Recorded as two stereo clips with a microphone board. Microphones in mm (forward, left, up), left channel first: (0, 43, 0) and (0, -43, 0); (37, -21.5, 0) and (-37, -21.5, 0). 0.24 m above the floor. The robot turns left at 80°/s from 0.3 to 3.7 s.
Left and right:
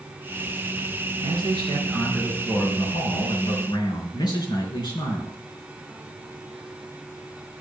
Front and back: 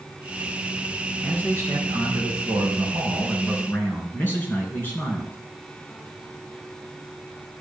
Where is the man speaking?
105° right, 4 m; by 5.4 s 60° left, 4 m.